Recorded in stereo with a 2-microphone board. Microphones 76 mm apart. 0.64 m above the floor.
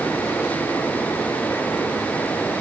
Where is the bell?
No bell in this recording.